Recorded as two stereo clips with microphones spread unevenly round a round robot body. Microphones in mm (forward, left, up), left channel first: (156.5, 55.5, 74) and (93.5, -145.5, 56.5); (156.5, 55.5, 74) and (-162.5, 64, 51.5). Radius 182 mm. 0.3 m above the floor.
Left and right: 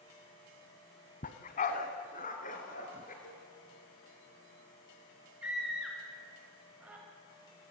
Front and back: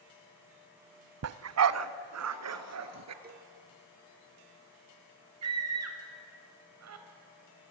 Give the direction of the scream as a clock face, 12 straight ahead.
6 o'clock.